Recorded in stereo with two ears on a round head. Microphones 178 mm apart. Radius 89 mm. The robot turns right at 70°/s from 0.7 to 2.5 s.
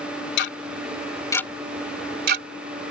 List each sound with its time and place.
0.4 s ticking: 60° left (ahead or behind); by 2.5 s 60° right (ahead or behind)